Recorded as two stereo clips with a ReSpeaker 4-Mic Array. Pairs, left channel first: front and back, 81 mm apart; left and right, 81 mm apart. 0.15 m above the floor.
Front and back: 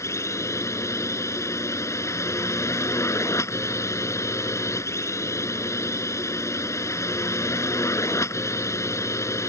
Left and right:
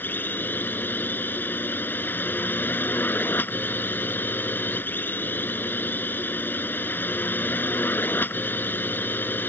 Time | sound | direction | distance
0.0 | a drone | 35° left | ?